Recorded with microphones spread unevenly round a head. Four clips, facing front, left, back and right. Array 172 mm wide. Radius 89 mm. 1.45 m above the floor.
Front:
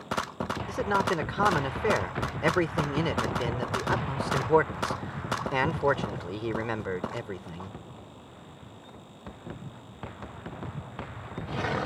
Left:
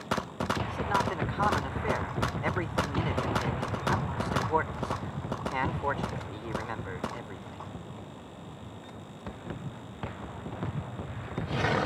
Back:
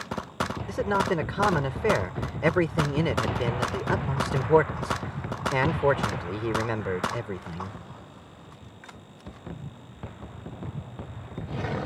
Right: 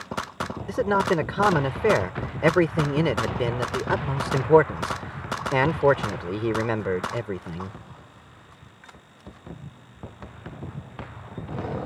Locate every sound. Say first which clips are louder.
0.7 s a man speaking: right 12 dB, back 1 dB; 90° right